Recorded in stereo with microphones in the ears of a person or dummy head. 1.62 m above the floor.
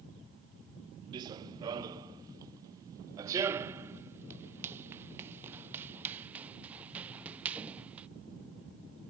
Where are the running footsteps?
25° right (ahead or behind); by 8.1 s 10° right (ahead or behind).